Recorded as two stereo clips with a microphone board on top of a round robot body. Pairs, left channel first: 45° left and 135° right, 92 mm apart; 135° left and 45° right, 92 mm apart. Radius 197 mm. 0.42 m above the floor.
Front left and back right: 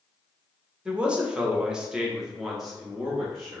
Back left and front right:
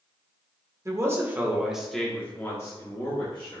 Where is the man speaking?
60° right, 1.1 m; by 3.6 s 135° left, 1.4 m.